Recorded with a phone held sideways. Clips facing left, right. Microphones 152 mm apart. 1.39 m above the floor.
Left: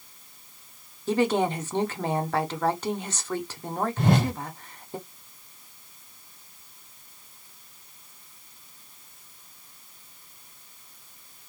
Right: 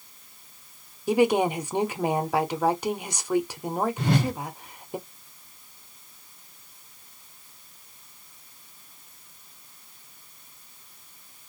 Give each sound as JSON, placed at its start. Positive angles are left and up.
{"t": 1.1, "sound": "a woman speaking", "side_deg": -10, "distance_m": 0.6}
{"t": 4.0, "sound": "a whoosh", "side_deg": 50, "distance_m": 1.4}